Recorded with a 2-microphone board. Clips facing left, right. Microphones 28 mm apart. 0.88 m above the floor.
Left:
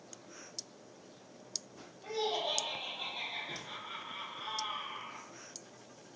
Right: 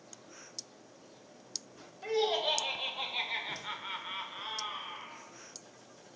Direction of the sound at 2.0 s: 75° right (ahead or behind).